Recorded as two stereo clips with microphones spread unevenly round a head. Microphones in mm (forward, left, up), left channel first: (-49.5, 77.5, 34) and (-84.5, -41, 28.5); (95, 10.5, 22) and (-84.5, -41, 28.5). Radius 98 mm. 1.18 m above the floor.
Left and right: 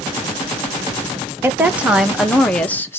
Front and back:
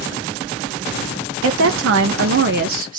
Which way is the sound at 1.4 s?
175° right.